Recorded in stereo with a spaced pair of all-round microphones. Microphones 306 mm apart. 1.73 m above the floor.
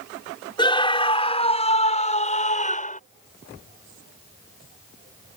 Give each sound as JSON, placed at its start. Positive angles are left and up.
{"t": 0.6, "sound": "a scream", "side_deg": 15}